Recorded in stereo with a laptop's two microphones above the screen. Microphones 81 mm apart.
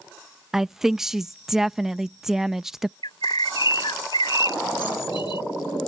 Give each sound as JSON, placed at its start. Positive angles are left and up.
{"t": 0.5, "sound": "a woman speaking", "side_deg": -5}
{"t": 3.0, "sound": "a bird", "side_deg": 75}